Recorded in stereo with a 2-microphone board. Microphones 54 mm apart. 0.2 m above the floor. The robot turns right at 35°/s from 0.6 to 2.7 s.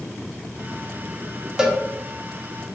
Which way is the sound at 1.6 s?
15° right (ahead or behind).